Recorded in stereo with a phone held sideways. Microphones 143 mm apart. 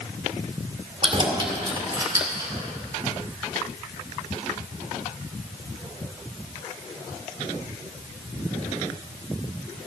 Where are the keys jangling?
40° right (ahead or behind), 2.0 m; by 2.5 s 20° right (ahead or behind), 2.5 m.